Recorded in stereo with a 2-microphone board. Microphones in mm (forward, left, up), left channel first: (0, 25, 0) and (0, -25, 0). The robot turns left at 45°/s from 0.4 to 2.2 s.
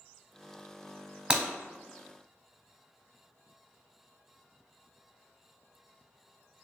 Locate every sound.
1.3 s breaking glass: 20° right (ahead or behind), 1.2 m; by 1.4 s 30° right (ahead or behind), 1.2 m